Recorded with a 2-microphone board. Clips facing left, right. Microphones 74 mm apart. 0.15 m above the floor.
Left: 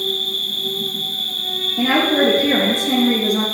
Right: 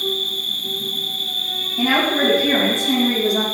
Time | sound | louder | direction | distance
0.0 | an insect | even | 70° left (ahead or behind) | 3 m
1.8 | a woman speaking | left 2 dB | 60° left (ahead or behind) | 3 m